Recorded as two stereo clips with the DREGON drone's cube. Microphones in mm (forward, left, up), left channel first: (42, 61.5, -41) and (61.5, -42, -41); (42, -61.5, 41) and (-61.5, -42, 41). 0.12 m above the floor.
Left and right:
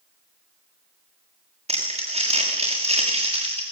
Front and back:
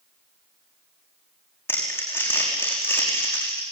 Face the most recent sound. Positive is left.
turn(degrees=-80)